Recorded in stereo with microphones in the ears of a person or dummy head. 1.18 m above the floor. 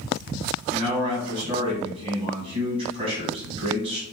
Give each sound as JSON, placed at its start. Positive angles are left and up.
{"t": 0.7, "sound": "a man speaking", "side_deg": -30, "distance_m": 1.6}